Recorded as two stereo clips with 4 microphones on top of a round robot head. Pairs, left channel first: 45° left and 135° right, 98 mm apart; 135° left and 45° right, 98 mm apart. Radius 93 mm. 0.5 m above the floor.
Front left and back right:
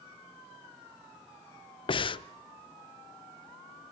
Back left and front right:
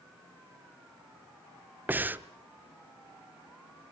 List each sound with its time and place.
1.9 s breathing: 25° left, 0.8 m